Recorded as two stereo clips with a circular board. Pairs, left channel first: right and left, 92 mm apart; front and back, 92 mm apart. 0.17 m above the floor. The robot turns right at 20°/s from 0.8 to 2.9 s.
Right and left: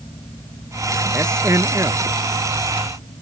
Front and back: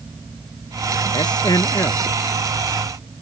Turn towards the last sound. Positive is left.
turn(degrees=65)